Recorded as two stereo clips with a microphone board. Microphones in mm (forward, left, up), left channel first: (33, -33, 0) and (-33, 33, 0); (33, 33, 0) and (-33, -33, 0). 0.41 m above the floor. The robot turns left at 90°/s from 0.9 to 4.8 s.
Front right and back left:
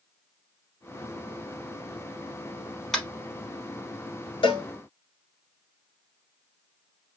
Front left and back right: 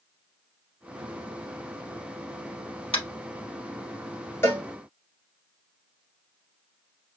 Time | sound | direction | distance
2.9 | tapping | 40° left | 1.0 m
4.4 | a cowbell | 20° right | 1.1 m